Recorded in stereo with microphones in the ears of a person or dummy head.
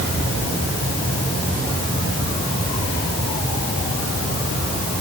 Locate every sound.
Only background noise.